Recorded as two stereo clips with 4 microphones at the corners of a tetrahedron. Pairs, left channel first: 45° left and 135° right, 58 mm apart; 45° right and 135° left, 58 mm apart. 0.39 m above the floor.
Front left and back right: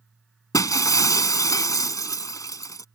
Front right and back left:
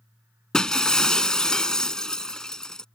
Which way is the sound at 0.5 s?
30° left.